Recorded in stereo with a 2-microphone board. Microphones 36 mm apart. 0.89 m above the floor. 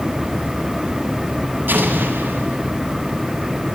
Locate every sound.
1.7 s an explosion: 75° right (ahead or behind), 7.5 m